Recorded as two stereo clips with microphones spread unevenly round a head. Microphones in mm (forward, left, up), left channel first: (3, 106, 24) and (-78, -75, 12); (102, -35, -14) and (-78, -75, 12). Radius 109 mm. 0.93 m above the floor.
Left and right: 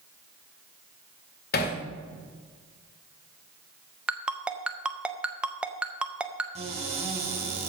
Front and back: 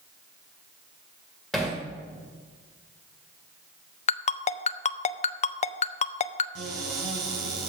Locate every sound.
1.5 s hammering: 105° left, 1.8 m
4.1 s a ringtone: 30° right, 0.5 m
6.5 s a cupboard door: 170° right, 5 m